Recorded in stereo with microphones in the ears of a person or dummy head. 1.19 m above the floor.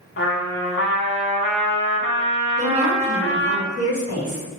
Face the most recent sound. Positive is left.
turn(degrees=-75)  # may be behind; listen again after turning